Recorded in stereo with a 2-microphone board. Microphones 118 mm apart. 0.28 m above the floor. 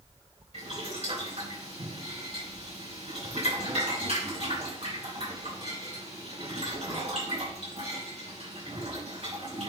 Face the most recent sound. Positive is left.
turn(degrees=-65)  # may be behind; listen again after turning